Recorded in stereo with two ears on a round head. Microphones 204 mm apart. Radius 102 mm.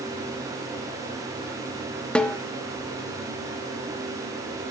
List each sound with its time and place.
2.1 s a snare drum: 5° left (ahead or behind), 0.9 m